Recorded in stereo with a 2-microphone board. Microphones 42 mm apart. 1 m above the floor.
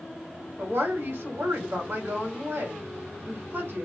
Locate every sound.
0.6 s a woman speaking: 60° right (ahead or behind), 2.0 m